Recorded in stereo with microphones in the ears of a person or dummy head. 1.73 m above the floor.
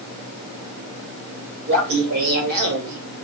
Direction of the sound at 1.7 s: 70° right (ahead or behind).